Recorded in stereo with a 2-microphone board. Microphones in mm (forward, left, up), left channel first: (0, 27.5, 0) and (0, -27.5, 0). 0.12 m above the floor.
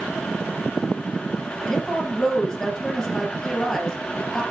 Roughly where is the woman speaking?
Centre.